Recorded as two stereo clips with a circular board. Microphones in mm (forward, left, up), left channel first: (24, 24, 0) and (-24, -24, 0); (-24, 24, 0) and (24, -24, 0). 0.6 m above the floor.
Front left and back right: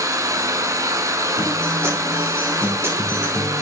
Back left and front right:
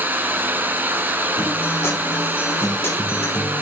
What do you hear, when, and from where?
0.0 s running water: 105° right, 0.9 m
1.4 s a guitar: 175° right, 2 m